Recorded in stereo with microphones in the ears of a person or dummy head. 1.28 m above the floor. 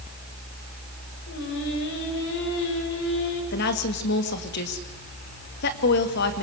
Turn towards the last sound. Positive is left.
turn(degrees=55)  # may be behind; listen again after turning